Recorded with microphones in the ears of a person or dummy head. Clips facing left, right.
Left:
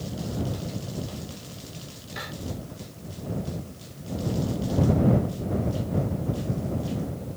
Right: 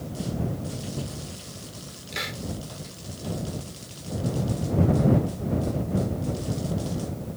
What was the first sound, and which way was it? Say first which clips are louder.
A hiss: right 2 dB; 35° right (ahead or behind).